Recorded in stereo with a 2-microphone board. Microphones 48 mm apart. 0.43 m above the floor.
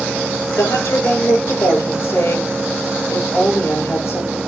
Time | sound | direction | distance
0.5 | a woman speaking | 75° left (ahead or behind) | 7 m